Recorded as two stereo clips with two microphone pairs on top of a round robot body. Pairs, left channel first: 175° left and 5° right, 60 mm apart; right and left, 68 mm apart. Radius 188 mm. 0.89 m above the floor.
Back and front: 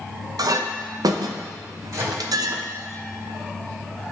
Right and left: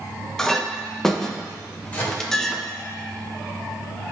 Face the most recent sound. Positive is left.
turn(degrees=-25)